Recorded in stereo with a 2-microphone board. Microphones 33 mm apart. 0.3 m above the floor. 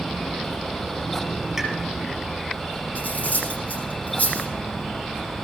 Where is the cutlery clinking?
55° left (ahead or behind), 9.5 m.